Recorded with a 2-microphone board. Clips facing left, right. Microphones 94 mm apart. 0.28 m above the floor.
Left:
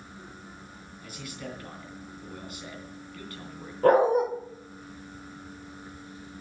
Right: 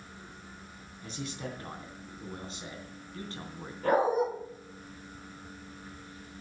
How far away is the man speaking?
About 3.5 m.